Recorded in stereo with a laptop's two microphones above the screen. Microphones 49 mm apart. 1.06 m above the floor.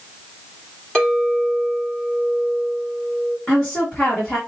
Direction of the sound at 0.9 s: 5° left (ahead or behind).